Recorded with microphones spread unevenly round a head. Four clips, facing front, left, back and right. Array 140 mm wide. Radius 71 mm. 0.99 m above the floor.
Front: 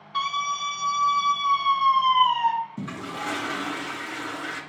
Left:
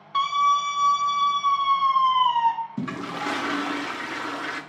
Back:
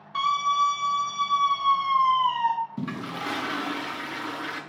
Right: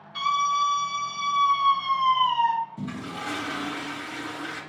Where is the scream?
90° left, 2 m; by 2.5 s 45° left, 2.0 m.